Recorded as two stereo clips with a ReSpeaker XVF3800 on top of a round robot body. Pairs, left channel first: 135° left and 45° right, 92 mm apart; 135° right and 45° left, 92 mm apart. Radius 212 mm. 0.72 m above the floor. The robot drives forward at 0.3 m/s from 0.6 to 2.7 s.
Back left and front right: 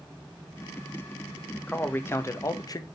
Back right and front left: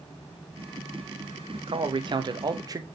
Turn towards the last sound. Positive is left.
turn(degrees=90)